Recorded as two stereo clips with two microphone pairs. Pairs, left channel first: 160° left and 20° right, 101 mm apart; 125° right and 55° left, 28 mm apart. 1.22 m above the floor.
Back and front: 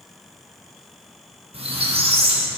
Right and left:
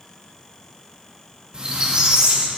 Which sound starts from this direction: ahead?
A squeak, at 1.5 s.